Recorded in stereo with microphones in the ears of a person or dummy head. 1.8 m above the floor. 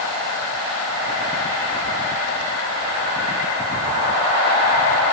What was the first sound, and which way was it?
Only background noise.